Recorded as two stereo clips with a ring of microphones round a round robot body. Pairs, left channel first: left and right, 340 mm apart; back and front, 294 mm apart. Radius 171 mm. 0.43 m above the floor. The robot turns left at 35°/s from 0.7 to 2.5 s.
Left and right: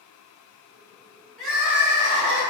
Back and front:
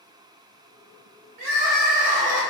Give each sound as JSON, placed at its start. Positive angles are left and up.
{"t": 1.4, "sound": "crying", "azimuth_deg": 0, "distance_m": 1.2}